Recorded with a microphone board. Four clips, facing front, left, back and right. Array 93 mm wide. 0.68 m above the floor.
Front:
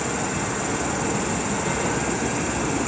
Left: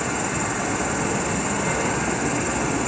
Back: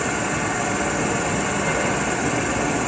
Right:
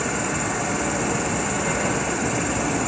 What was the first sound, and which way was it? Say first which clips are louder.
An insect: even, back 3 dB; 170° right.